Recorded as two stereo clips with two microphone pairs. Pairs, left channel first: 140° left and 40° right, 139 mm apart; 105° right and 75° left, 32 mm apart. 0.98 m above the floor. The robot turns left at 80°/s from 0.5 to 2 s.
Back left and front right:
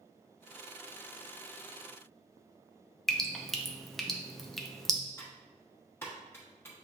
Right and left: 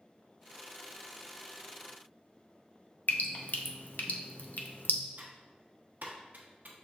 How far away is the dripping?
About 0.5 m.